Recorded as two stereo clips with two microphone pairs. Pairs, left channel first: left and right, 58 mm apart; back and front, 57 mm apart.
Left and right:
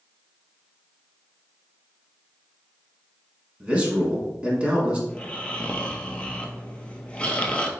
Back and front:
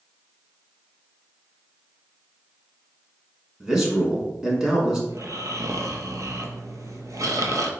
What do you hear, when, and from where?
3.6 s a man speaking: 65° right, 1.1 m
5.1 s snoring: 15° left, 0.5 m